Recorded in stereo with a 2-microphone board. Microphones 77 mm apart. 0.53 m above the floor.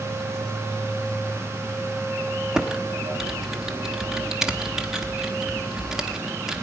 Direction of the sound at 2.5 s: 10° right (ahead or behind).